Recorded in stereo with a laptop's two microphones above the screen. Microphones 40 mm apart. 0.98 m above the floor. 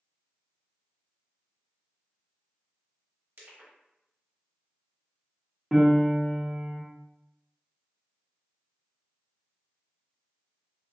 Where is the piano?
5° right (ahead or behind), 0.9 m.